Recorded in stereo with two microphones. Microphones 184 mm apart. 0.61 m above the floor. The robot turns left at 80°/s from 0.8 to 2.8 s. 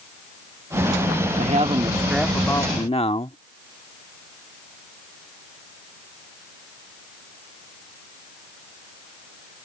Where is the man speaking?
110° right; by 3.4 s 135° left.